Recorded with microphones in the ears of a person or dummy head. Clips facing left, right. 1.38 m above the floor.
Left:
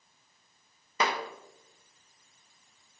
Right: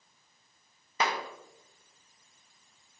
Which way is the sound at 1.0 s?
50° left (ahead or behind).